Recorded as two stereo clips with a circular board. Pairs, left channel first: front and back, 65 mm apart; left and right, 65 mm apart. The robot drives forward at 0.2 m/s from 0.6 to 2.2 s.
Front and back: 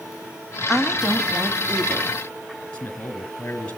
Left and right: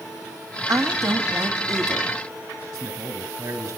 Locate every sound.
0.7 s a woman speaking: 95° right, 1.6 m; by 2.1 s 110° right, 1.6 m
2.7 s a man speaking: 70° right, 3 m